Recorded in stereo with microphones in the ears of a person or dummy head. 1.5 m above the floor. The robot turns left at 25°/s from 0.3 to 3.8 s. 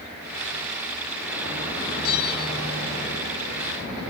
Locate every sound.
2.0 s a bell: 65° left (ahead or behind), 3.5 m; by 2.6 s 50° left (ahead or behind), 3.5 m